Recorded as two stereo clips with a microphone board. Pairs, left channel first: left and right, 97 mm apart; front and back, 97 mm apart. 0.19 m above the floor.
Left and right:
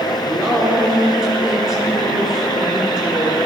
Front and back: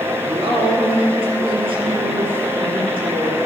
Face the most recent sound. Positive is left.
turn(degrees=-170)